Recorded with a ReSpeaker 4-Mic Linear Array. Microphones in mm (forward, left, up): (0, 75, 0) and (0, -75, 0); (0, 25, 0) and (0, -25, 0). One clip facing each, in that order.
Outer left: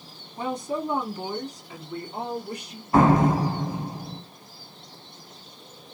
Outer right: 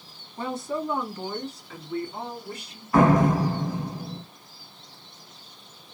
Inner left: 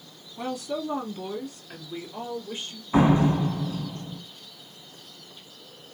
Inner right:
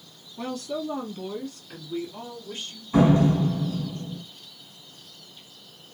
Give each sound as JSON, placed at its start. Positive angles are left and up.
{"t": 0.4, "sound": "a woman speaking", "side_deg": 15, "distance_m": 1.1}
{"t": 2.9, "sound": "a door slam", "side_deg": 25, "distance_m": 1.2}